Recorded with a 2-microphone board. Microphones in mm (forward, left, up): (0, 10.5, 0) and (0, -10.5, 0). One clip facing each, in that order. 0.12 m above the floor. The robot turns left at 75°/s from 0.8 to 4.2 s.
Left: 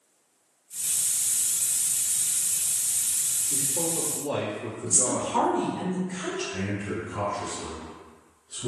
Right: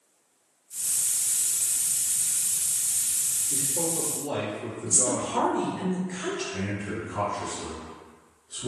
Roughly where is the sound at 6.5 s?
Left.